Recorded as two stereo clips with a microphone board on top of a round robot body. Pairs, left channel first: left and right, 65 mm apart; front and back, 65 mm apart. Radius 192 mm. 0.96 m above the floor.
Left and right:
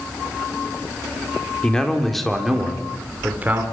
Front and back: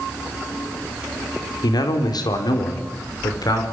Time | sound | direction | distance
1.6 | a man speaking | 10° left | 4 m